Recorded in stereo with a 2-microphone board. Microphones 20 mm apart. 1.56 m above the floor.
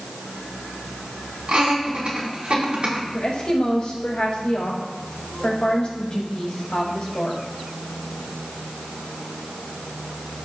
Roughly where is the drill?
I don't hear a drill.